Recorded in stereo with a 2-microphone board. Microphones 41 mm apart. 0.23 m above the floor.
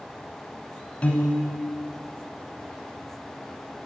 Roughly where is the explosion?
No explosion in this recording.